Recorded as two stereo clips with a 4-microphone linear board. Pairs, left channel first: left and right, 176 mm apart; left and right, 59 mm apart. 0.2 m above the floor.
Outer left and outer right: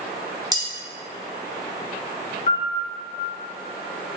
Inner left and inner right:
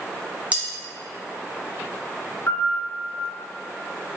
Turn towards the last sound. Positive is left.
turn(degrees=55)  # may be behind; listen again after turning